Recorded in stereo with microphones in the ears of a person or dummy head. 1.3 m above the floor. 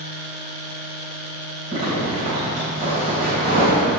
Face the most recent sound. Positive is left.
turn(degrees=-40)  # may be behind; listen again after turning